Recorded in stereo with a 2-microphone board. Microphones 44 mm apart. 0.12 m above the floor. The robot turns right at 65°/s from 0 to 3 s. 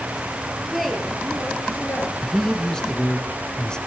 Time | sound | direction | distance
0.6 | a woman speaking | 10° right | 2.5 m
2.2 | a man speaking | centre (ahead or behind) | 1.1 m